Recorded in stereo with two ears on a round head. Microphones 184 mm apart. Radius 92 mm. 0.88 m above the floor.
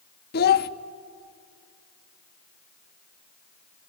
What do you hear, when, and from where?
0.3 s a child speaking: 50° left (ahead or behind), 0.9 m